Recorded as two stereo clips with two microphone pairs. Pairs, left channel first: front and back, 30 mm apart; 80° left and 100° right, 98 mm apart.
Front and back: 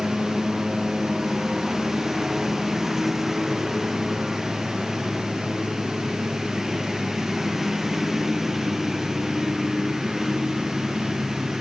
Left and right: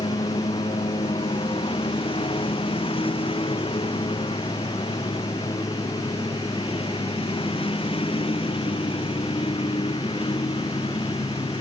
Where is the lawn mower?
105° left.